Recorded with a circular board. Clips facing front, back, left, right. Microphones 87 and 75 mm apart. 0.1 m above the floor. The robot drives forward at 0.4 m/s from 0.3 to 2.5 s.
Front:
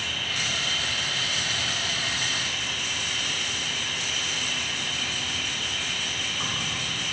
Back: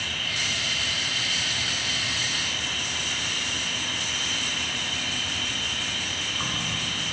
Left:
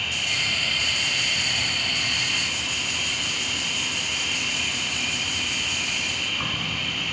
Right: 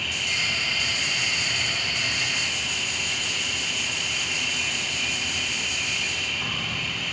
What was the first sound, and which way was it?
An insect, 55° left.